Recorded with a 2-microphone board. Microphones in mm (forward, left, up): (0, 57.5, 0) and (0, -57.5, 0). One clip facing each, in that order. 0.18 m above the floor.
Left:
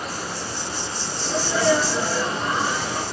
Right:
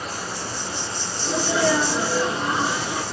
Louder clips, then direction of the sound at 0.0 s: Left 1 dB; centre (ahead or behind).